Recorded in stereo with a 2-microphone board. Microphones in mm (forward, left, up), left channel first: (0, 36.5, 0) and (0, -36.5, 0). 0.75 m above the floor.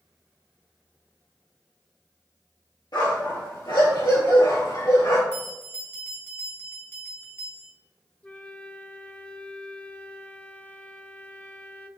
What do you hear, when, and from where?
2.9 s a dog barking: 75° left (ahead or behind), 5 m; by 5.2 s 80° left, 4.5 m
5.3 s a bell: 30° left (ahead or behind), 2.5 m
8.2 s a flute: 15° left (ahead or behind), 0.6 m